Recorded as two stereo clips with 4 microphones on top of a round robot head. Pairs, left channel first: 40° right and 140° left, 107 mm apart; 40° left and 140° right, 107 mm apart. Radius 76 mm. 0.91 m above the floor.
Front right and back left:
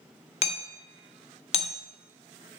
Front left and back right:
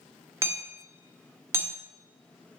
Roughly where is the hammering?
Right.